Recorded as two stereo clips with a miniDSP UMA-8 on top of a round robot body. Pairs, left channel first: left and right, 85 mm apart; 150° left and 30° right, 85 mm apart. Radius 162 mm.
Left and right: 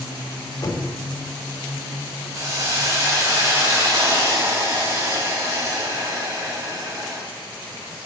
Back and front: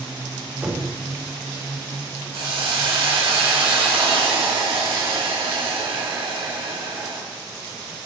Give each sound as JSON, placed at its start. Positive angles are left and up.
{"t": 0.6, "sound": "knocking", "azimuth_deg": 45, "distance_m": 2.0}
{"t": 2.3, "sound": "a hiss", "azimuth_deg": -35, "distance_m": 5.0}